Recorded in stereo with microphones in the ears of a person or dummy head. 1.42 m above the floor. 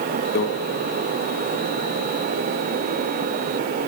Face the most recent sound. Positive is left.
turn(degrees=50)  # may be behind; listen again after turning